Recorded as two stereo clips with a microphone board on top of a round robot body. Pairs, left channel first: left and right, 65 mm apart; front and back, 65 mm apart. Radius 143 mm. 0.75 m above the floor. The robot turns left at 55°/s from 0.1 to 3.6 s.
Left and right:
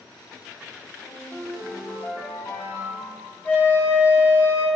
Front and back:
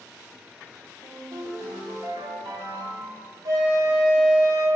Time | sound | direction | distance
1.0 | a ringtone | 120° right | 1.0 m
3.5 | a flute | 150° left | 1.0 m